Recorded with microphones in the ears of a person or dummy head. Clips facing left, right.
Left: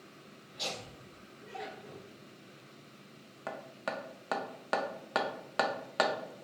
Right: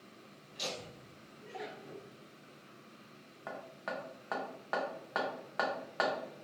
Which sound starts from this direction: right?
Laughter, at 0.5 s.